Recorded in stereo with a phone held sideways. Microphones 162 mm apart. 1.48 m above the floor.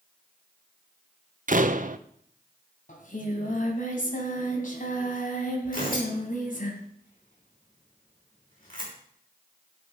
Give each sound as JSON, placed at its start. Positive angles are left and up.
{"t": 1.5, "sound": "a door slam", "side_deg": -55, "distance_m": 0.7}
{"t": 2.9, "sound": "singing", "side_deg": 60, "distance_m": 2.0}
{"t": 5.7, "sound": "tearing paper", "side_deg": 65, "distance_m": 6.0}